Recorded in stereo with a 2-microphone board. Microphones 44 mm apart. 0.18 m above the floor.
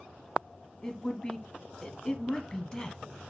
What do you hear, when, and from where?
0.8 s a woman speaking: 20° left (ahead or behind), 1.0 m